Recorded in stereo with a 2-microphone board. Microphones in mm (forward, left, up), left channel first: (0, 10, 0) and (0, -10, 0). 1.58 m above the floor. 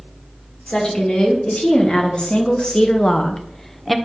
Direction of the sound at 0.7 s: 75° left (ahead or behind).